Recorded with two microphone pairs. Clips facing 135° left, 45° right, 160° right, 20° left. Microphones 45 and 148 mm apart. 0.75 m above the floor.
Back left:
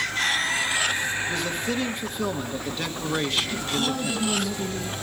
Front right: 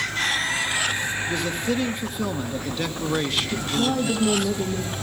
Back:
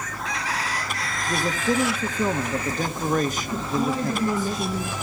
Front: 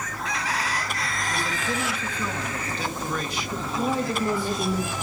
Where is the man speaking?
135° right, 1.2 m.